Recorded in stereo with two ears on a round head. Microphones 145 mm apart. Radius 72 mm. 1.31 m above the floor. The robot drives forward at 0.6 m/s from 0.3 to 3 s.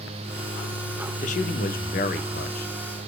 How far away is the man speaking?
About 1.1 m.